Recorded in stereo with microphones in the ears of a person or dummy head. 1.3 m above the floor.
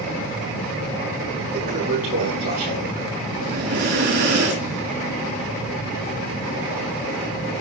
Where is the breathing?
60° right (ahead or behind), 5.5 m.